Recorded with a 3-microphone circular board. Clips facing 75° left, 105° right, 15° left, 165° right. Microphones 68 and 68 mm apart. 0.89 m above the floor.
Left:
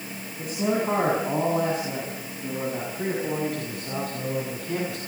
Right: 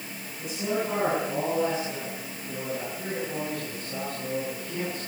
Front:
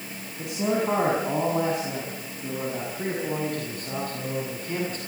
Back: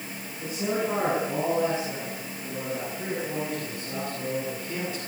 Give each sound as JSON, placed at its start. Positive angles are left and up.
{"t": 0.4, "sound": "a man speaking", "azimuth_deg": 30, "distance_m": 7.5}